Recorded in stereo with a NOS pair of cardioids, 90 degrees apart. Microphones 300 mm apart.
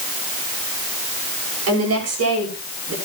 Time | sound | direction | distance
1.7 | a woman speaking | 55° right | 7 m